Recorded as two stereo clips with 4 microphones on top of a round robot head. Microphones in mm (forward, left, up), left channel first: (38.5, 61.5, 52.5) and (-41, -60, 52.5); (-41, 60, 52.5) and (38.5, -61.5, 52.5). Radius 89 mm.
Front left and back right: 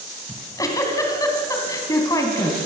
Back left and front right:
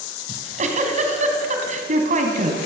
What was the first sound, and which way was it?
A giggle, 15° right.